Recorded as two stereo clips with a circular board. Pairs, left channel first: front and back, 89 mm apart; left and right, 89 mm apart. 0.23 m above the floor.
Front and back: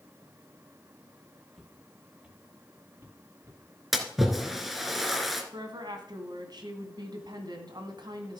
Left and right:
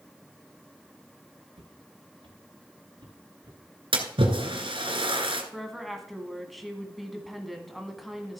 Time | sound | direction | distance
1.5 | footsteps | 95° right | 2.5 m
3.9 | a splash | 95° right | 1.7 m
5.5 | a woman speaking | straight behind | 1.8 m